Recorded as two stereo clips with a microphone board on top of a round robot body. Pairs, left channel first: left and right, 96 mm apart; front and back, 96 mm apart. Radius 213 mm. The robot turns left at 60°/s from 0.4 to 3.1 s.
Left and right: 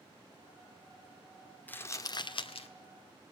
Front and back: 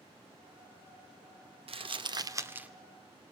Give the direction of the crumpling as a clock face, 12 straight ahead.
7 o'clock.